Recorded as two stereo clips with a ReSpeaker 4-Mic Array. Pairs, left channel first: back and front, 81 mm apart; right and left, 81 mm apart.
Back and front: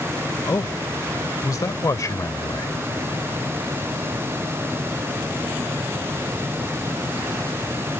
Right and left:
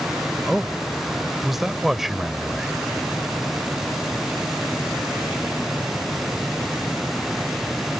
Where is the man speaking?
175° left.